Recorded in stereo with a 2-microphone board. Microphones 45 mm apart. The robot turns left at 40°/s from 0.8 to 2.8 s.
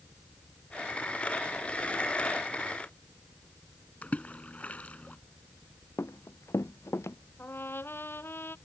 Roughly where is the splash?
Left.